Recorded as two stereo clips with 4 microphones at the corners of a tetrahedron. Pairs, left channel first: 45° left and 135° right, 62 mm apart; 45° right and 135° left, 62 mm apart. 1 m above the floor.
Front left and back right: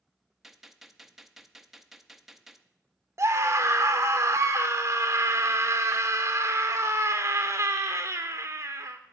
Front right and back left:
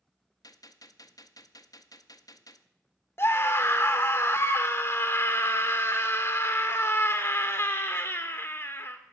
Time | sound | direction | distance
0.4 | a gunshot | 50° right | 0.5 m
3.2 | a scream | 95° right | 0.6 m